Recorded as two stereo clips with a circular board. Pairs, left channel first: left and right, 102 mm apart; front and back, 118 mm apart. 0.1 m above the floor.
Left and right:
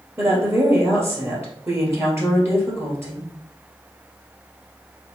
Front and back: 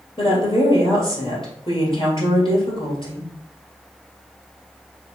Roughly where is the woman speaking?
Ahead right.